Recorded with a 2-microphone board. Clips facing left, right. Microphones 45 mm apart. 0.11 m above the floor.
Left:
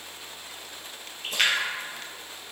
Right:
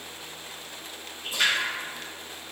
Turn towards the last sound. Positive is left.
turn(degrees=65)  # may be behind; listen again after turning